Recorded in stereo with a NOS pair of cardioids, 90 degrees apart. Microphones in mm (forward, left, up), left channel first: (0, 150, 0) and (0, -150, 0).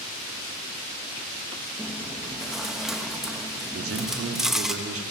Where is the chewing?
Straight ahead, 3.5 m.